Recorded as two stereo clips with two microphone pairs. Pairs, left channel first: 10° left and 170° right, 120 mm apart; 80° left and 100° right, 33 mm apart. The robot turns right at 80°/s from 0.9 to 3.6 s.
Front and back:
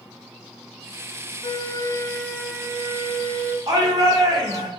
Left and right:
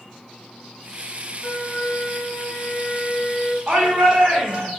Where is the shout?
140° right, 1.5 m.